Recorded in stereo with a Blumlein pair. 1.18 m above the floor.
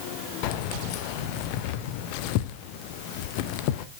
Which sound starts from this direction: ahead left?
Keys jangling, at 0.4 s.